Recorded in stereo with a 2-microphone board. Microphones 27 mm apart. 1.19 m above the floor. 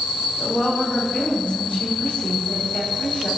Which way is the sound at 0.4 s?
65° left (ahead or behind).